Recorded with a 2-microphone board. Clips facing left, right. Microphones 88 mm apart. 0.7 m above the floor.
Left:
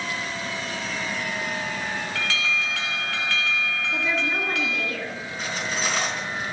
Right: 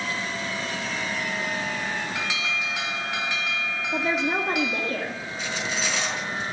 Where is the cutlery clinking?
45° left (ahead or behind), 4.5 m.